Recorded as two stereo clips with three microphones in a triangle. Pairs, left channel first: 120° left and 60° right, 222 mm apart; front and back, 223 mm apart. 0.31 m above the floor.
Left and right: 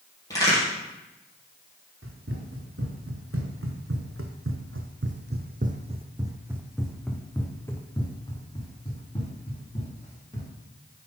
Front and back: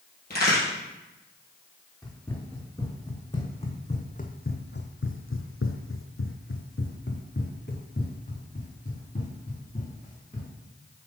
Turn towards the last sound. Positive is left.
turn(degrees=60)